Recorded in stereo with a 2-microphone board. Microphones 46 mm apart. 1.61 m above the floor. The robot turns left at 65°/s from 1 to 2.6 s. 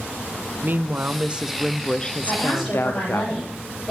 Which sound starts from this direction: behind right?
A woman speaking, at 0.6 s.